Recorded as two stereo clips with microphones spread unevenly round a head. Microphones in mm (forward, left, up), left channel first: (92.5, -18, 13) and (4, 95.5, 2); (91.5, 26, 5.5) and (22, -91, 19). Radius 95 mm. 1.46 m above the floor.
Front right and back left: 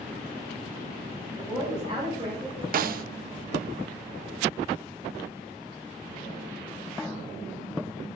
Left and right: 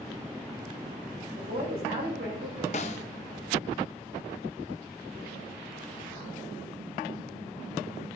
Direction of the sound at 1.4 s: 160° right.